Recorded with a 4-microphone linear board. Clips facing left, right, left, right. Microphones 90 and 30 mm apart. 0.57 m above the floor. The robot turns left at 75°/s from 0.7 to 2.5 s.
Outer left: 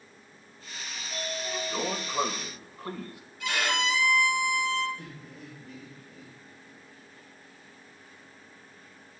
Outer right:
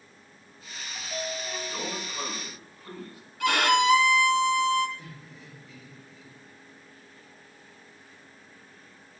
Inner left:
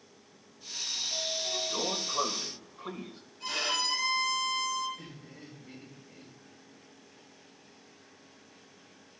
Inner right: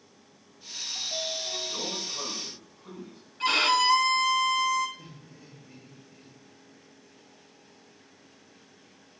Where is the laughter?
55° left (ahead or behind), 5 m.